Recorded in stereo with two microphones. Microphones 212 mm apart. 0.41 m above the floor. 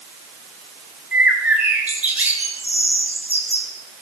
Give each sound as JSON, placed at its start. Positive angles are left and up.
{"t": 1.1, "sound": "a bird", "side_deg": -5, "distance_m": 7.5}